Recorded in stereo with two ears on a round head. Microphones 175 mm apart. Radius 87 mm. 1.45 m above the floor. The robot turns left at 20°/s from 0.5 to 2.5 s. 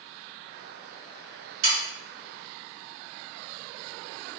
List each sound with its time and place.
1.6 s sawing: 75° right (ahead or behind), 1.7 m